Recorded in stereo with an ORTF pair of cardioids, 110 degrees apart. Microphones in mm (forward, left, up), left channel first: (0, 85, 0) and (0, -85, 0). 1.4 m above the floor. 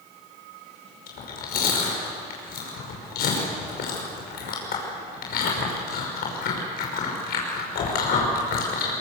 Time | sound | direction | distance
1.1 | chewing | 65° left | 5.5 m